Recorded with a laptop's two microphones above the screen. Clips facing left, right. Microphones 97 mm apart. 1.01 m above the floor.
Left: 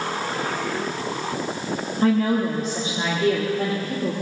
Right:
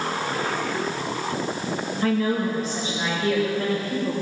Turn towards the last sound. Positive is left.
turn(degrees=55)  # may be behind; listen again after turning